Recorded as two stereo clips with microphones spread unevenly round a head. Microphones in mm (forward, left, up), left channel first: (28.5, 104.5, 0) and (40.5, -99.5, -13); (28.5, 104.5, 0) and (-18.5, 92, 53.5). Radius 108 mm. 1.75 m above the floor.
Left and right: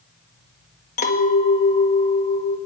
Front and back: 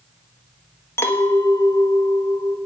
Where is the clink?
115° left, 1.3 m.